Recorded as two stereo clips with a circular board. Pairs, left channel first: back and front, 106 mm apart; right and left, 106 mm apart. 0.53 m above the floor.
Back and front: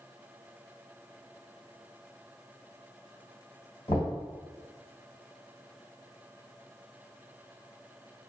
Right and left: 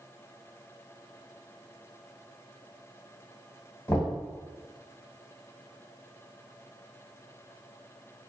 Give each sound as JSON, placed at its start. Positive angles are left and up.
{"t": 3.9, "sound": "knocking", "azimuth_deg": -155, "distance_m": 1.7}